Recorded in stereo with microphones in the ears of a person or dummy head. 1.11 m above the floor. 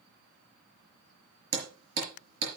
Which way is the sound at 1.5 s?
80° right.